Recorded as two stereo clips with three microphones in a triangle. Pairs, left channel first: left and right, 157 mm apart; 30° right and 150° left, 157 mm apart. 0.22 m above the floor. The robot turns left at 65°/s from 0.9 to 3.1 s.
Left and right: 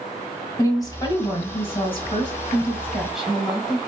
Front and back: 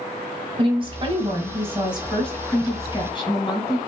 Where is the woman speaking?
135° left, 1.4 m; by 3.8 s 5° right, 1.4 m.